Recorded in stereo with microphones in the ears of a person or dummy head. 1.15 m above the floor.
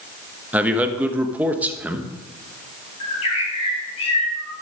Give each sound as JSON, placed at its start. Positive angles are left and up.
{"t": 0.5, "sound": "a man speaking", "side_deg": 0, "distance_m": 1.1}
{"t": 3.0, "sound": "a bird", "side_deg": 40, "distance_m": 5.0}